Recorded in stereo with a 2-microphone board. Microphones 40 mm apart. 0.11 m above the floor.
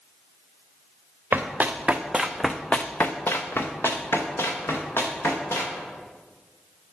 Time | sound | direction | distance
1.3 | running footsteps | 50° right (ahead or behind) | 1.0 m